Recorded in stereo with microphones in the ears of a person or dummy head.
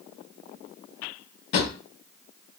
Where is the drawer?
45° left (ahead or behind), 0.5 m.